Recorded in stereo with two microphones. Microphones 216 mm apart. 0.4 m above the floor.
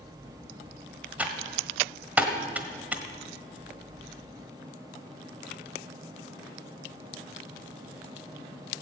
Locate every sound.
1.2 s typing on a keyboard: 5° right (ahead or behind), 1.2 m